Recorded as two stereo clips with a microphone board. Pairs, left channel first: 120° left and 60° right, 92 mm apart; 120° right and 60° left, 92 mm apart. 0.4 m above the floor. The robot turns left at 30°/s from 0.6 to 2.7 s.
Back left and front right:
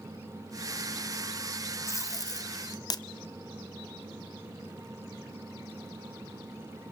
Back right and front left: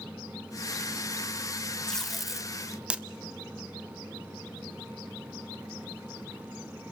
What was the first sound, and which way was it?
Tape being pulled, 160° left.